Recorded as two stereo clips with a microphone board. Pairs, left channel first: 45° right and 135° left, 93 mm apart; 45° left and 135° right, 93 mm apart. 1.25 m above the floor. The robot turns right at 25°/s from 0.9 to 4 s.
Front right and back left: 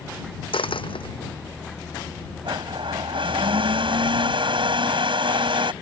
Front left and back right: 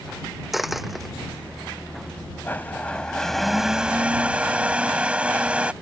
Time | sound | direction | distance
0.5 | a dropped coin | 45° right | ?
2.5 | a blender | 110° left | ?